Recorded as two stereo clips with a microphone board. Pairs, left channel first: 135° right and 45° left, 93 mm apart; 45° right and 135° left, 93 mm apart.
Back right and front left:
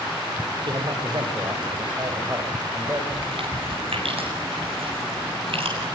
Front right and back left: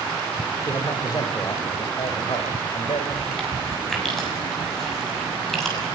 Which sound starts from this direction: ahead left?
Chewing, at 3.1 s.